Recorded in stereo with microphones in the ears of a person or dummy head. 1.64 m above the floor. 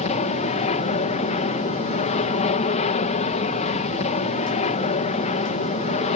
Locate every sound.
0.0 s an aircraft: 40° left (ahead or behind)